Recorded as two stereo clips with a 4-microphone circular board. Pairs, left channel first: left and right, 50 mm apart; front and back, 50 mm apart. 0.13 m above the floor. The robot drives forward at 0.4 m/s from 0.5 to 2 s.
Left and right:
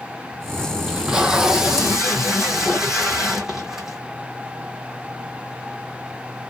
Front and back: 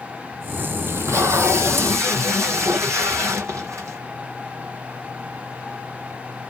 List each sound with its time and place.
0.9 s tape being pulled: 160° right, 0.5 m; by 4.0 s 170° right, 1.0 m